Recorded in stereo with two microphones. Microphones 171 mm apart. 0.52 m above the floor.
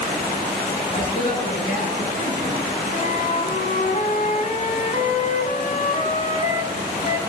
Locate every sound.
0.9 s a man speaking: 35° left (ahead or behind), 5 m; by 2.6 s 55° left (ahead or behind), 5.5 m
2.9 s a flute: 50° left (ahead or behind), 0.9 m